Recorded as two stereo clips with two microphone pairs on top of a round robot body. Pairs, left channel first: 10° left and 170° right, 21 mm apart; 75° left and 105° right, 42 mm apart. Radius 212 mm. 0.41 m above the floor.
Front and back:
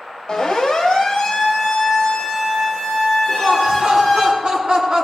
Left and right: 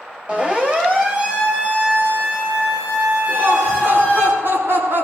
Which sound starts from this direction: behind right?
Laughter, at 3.3 s.